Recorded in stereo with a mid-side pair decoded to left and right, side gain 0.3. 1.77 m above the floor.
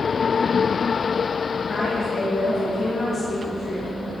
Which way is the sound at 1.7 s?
45° left.